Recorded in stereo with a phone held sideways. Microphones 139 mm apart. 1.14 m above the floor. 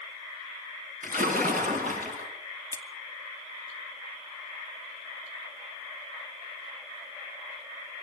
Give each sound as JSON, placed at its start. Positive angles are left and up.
{"t": 1.0, "sound": "a splash", "side_deg": -80, "distance_m": 6.0}
{"t": 2.7, "sound": "scissors", "side_deg": 20, "distance_m": 1.9}